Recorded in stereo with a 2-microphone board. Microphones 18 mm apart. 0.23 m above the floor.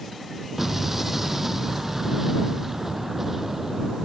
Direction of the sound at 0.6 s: 20° right (ahead or behind).